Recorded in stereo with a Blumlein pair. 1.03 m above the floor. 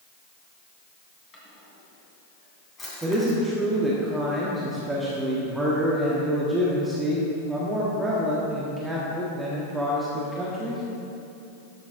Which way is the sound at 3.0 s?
10° right.